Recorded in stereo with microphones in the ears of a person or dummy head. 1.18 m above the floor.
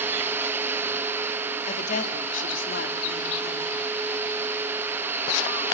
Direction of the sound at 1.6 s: 40° left (ahead or behind).